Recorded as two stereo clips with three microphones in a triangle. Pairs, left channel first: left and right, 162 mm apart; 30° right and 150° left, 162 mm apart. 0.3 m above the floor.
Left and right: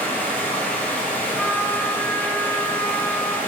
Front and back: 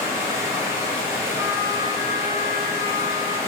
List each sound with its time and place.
0.0 s running water: 145° left, 0.9 m
1.4 s a trumpet: 170° left, 0.6 m